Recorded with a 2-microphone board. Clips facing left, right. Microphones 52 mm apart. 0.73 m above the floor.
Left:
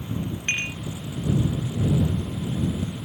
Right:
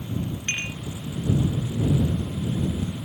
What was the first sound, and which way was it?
Dishes clattering, 20° left (ahead or behind).